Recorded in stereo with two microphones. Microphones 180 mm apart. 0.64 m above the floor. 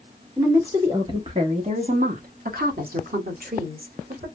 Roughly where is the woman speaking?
Centre.